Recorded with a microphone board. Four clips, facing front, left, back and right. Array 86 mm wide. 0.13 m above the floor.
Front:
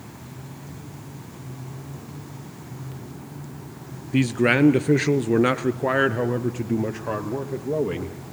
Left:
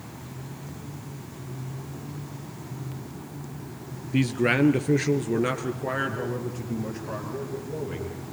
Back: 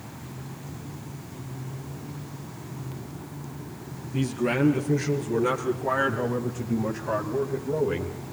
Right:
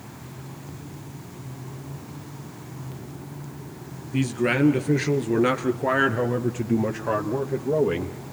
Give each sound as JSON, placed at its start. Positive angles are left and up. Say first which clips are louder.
{"t": 4.1, "sound": "a man speaking", "louder": "even, front 6 dB", "azimuth_deg": 15, "distance_m": 2.0}